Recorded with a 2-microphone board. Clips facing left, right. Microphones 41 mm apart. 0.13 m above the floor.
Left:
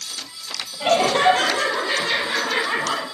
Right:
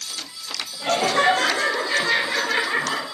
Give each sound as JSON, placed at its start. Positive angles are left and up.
{"t": 0.8, "sound": "laughter", "side_deg": 65, "distance_m": 4.0}